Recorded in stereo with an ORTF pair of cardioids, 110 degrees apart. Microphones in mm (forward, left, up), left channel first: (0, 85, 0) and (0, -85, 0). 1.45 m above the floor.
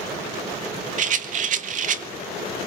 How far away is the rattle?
About 1.7 m.